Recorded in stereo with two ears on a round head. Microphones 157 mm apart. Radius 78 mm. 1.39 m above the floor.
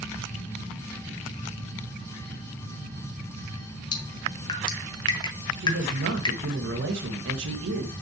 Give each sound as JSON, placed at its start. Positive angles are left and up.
{"t": 3.9, "sound": "dripping", "side_deg": 25, "distance_m": 1.3}
{"t": 5.6, "sound": "a man speaking", "side_deg": -70, "distance_m": 2.0}